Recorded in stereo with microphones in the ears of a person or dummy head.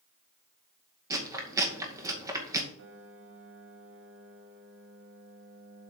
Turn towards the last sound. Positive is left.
turn(degrees=-60)  # may be behind; listen again after turning